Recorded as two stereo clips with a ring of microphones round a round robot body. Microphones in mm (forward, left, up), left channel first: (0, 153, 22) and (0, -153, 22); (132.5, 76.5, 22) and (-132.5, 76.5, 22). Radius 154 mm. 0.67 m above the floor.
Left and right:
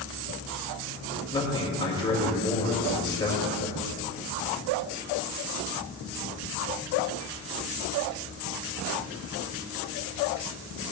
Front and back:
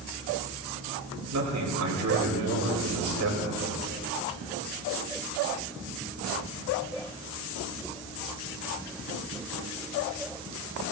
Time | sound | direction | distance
1.3 | a man speaking | 165° left | 3.5 m